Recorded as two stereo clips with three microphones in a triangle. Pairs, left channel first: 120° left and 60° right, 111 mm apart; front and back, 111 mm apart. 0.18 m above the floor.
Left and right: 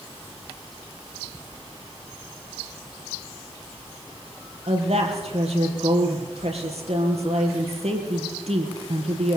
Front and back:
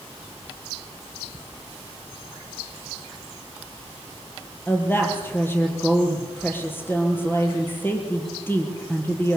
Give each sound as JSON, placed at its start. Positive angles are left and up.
{"t": 4.7, "sound": "a woman speaking", "azimuth_deg": -70, "distance_m": 5.0}